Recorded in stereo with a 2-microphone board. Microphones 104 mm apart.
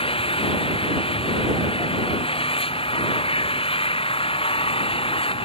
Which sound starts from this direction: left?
An engine running, at 0.0 s.